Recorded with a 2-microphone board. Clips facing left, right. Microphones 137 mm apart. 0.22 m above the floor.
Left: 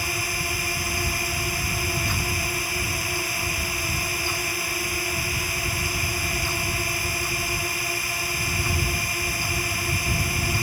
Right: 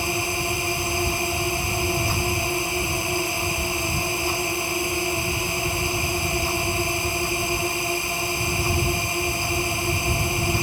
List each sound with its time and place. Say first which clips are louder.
0.0 s a drone: right 5 dB; 25° right (ahead or behind)